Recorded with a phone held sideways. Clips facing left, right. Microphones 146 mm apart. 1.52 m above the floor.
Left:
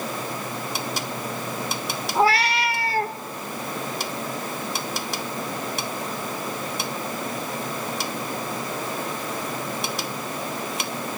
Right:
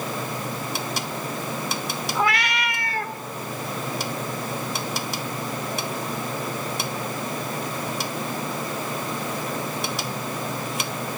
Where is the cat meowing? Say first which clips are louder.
Left 5 dB; 35° left (ahead or behind), 0.8 m.